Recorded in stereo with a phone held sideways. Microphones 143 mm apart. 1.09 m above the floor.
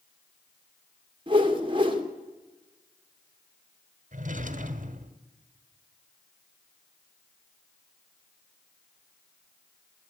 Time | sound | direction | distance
1.3 | a whoosh | 35° right (ahead or behind) | 2.5 m
4.1 | a drawer | 65° right (ahead or behind) | 1.6 m